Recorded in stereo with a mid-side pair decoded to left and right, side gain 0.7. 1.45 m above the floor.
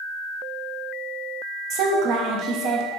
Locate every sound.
1.7 s a woman speaking: 55° right, 0.9 m